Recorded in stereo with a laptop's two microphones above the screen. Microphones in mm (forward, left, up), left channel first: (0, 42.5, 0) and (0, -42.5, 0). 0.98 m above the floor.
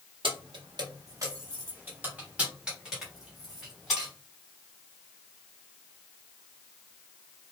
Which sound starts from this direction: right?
Keys jangling, at 0.2 s.